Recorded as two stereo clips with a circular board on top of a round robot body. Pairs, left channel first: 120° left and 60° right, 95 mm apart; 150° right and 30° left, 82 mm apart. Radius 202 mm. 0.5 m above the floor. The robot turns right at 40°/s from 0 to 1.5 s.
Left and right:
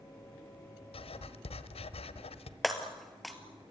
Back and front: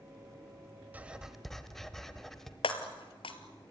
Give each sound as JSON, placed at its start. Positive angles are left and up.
{"t": 0.9, "sound": "writing", "azimuth_deg": 100, "distance_m": 1.2}
{"t": 2.6, "sound": "breaking glass", "azimuth_deg": -150, "distance_m": 1.2}